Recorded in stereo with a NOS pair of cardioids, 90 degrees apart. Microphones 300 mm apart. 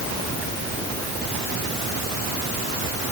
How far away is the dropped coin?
No dropped coin in this recording.